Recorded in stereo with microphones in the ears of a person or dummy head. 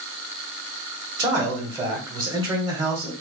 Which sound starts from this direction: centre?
A man speaking, at 1.2 s.